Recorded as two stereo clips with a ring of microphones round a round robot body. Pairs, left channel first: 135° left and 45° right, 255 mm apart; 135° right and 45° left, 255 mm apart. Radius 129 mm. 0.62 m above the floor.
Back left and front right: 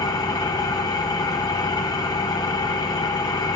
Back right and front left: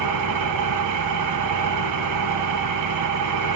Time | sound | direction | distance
0.0 | an engine running | 60° left | 2 m